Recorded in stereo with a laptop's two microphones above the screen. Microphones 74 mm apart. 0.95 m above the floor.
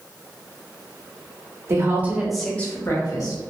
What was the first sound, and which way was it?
A woman speaking, 40° right (ahead or behind).